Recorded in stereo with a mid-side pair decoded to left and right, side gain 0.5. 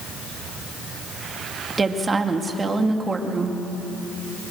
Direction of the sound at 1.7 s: 30° right.